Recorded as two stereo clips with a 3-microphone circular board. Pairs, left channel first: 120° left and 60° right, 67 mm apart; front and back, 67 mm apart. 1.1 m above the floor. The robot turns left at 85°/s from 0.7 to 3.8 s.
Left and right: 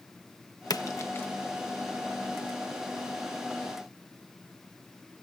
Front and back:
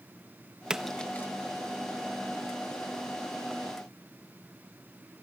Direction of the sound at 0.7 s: 105° left.